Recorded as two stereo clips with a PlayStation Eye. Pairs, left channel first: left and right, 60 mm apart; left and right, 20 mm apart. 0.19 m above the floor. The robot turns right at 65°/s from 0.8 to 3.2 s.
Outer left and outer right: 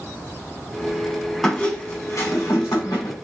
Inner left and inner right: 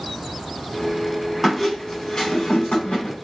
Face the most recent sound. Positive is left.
turn(degrees=120)